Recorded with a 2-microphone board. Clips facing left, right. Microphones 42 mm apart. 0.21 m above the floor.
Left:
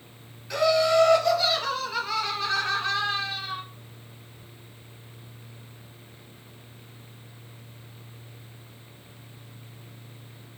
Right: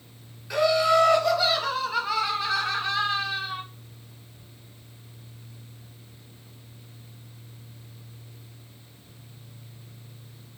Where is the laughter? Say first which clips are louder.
Even; 5° right (ahead or behind), 1.7 m; by 3.6 s 10° right (ahead or behind), 1.2 m.